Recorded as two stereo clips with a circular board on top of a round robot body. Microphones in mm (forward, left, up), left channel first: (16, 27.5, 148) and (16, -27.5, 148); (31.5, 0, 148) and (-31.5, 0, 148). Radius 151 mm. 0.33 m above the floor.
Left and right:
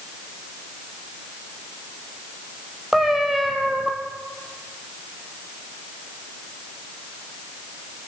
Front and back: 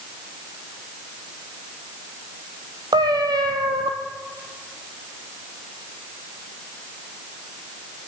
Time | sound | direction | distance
2.9 | a cat meowing | 175° right | 1.6 m